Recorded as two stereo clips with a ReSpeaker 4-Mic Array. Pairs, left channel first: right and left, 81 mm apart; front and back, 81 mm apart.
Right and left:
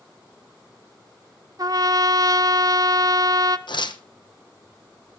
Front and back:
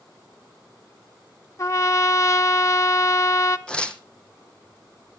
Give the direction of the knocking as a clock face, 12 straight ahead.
I don't hear knocking.